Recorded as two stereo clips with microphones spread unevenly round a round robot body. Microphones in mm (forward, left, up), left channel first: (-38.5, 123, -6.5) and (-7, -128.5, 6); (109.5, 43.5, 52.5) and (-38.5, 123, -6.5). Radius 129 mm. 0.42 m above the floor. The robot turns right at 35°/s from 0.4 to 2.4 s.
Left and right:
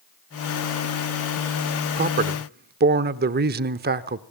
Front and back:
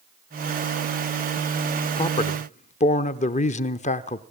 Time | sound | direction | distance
2.0 | a man speaking | 95° right | 1.1 m